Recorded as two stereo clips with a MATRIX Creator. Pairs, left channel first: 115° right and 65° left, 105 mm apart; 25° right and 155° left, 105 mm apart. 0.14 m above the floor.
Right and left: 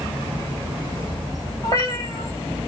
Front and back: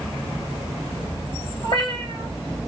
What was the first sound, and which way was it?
A cat meowing, 55° right.